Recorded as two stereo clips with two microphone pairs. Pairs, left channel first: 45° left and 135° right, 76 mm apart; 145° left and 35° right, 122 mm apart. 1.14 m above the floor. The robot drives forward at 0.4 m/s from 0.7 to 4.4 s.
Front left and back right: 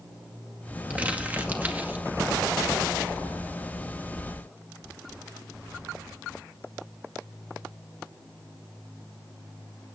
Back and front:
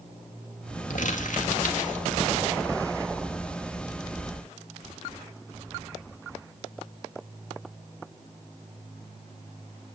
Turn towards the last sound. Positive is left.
turn(degrees=165)